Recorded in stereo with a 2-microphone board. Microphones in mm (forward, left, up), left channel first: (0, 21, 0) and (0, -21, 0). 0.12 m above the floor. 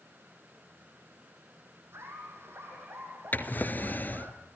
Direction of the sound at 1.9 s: 75° right (ahead or behind).